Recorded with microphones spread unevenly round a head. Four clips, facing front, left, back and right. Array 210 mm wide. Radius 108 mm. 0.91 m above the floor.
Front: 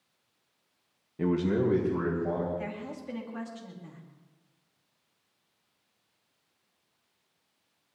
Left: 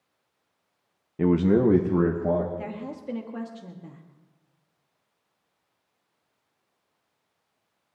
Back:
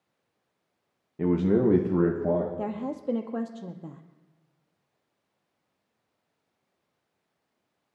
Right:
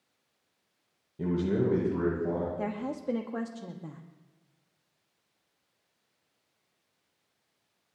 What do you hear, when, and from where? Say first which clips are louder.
1.2 s a man speaking: left 8 dB, back 4 dB; 75° left, 1.0 m; by 2.5 s 135° left, 2 m
2.6 s a woman speaking: right 2 dB, back 6 dB; 160° right, 1.1 m